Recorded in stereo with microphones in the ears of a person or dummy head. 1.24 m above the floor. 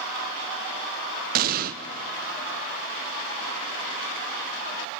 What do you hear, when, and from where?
1.4 s an explosion: 45° right (ahead or behind), 0.7 m